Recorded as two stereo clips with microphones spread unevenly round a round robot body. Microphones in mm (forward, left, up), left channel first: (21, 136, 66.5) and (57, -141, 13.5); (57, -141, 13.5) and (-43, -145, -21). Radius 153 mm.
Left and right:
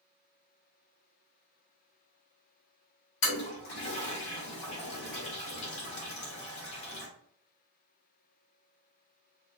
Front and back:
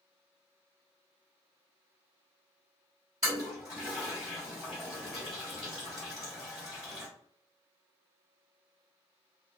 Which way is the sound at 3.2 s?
100° left.